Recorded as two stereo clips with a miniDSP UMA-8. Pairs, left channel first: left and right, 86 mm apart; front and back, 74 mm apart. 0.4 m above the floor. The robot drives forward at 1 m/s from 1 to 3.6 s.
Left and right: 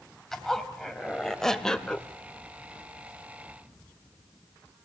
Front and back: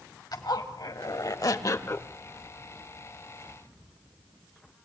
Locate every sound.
0.3 s a zipper: 5° left, 1.6 m; by 2.1 s 20° left, 0.8 m